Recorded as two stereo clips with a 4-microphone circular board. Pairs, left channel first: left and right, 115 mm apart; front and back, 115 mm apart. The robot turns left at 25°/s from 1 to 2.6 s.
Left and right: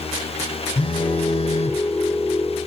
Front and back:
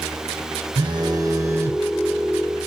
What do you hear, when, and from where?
0.8 s a phone buzzing: 130° left, 0.8 m; by 1.8 s 110° left, 0.8 m